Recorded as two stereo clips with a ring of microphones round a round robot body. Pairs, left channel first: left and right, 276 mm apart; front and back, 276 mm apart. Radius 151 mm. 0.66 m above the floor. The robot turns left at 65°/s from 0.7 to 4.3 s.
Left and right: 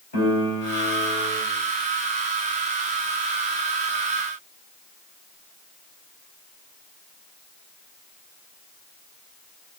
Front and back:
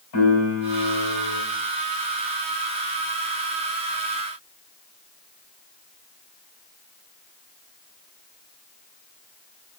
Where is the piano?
25° left, 3.5 m; by 1.4 s 20° right, 3.5 m.